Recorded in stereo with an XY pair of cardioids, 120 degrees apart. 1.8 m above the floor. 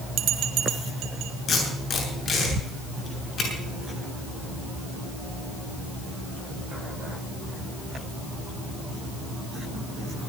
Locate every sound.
0.2 s a bell: 65° right, 2.0 m
1.5 s tape being pulled: 45° left, 7.5 m